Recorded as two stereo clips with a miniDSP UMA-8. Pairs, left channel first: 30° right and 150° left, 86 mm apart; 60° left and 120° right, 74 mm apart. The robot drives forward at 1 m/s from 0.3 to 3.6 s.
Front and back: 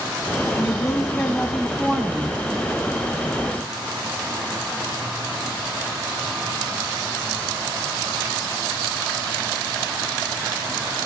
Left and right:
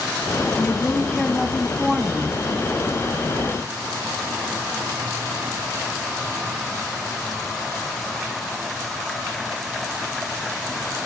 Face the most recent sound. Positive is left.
turn(degrees=180)